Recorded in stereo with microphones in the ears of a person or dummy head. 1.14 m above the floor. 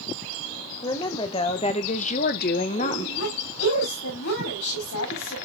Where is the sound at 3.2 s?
85° left, 7.5 m.